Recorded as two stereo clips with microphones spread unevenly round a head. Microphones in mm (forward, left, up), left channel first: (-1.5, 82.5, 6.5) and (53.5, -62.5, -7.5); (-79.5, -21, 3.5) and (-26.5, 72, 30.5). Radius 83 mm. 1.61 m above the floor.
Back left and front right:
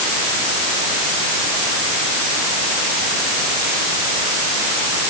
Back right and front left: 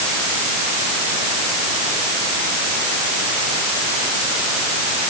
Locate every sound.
Only background noise.